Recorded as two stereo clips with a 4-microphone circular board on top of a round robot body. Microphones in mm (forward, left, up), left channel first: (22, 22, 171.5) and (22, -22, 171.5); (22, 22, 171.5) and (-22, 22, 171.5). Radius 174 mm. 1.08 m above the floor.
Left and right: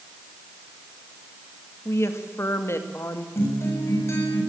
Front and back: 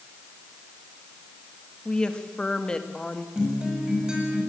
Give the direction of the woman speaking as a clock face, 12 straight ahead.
10 o'clock.